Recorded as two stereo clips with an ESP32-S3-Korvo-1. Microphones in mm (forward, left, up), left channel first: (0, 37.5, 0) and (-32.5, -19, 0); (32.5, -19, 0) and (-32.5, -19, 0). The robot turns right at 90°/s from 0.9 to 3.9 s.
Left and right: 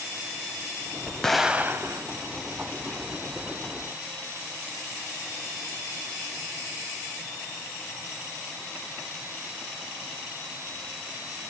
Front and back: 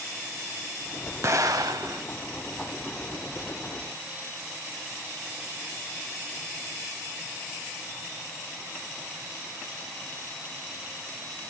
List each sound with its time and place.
1.2 s an explosion: 140° left, 0.6 m; by 2.0 s 145° right, 0.6 m